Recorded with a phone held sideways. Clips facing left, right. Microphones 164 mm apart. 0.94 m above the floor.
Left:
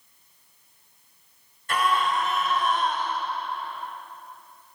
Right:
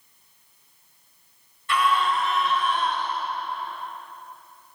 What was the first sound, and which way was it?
A scream, 45° left (ahead or behind).